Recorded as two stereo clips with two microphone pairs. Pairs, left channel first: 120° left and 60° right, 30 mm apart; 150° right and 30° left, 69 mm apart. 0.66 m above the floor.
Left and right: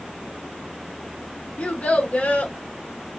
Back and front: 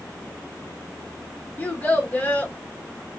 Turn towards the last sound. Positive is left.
turn(degrees=145)